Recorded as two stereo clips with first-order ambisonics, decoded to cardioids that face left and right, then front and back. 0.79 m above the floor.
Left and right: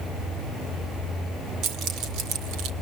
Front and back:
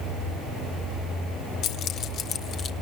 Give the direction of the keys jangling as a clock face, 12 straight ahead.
2 o'clock.